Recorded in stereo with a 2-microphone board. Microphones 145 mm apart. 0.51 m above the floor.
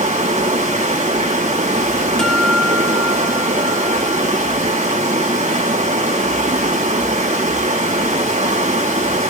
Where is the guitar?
5° left (ahead or behind), 2.5 m.